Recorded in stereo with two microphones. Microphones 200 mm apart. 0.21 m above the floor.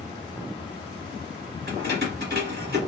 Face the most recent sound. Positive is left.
turn(degrees=-55)  # may be behind; listen again after turning